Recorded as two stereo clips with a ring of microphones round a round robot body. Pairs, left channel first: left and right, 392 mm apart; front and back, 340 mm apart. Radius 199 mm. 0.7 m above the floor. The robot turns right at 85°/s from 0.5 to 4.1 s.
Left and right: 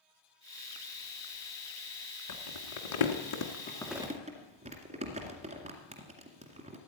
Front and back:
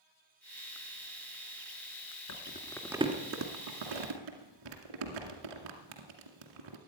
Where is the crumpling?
45° left, 2 m; by 6.8 s 165° right, 2 m.